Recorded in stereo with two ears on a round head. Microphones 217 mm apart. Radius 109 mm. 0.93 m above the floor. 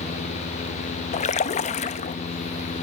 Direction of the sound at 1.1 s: 30° left (ahead or behind).